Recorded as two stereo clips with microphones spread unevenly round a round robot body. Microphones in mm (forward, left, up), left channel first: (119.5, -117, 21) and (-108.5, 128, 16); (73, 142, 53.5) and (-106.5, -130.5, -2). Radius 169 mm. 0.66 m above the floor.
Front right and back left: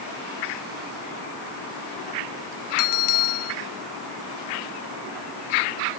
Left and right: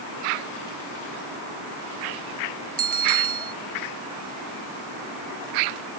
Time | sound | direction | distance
2.8 | a bell | 60° right | ?